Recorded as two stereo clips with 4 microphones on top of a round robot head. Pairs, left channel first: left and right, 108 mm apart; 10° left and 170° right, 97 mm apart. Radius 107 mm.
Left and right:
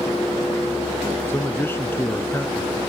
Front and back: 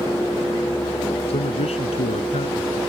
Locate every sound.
1.3 s a man speaking: 20° left